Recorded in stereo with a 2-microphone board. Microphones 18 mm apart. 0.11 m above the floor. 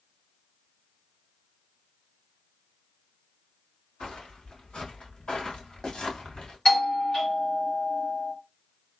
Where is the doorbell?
40° left (ahead or behind), 2 m.